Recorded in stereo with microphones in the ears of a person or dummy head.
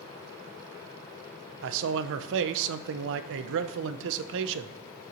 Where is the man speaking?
70° right (ahead or behind), 0.6 m.